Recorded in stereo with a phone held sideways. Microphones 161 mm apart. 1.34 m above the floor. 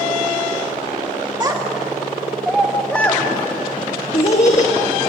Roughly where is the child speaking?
Right.